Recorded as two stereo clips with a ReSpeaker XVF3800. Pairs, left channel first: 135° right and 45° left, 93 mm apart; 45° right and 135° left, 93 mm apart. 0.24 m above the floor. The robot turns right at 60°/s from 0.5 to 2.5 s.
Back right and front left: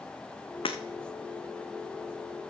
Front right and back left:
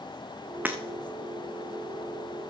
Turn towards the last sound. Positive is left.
turn(degrees=-40)